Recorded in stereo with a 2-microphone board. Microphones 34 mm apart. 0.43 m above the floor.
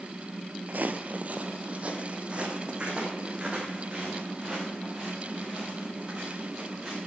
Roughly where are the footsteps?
Right.